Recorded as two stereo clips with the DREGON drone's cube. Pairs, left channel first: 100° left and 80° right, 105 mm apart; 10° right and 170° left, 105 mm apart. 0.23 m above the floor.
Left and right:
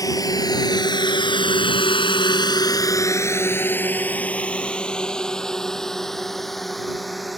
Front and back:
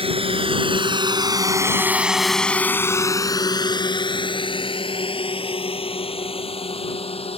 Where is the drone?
155° left; by 7.4 s 10° left.